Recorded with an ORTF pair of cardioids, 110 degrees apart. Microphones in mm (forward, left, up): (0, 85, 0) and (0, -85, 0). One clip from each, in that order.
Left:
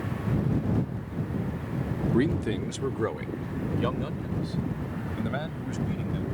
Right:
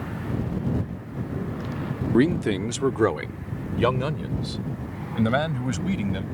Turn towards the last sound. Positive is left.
turn(degrees=-60)